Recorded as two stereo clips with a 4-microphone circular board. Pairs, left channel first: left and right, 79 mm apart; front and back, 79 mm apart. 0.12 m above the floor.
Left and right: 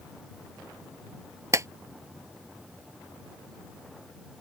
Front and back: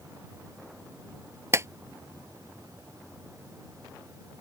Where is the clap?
135° right.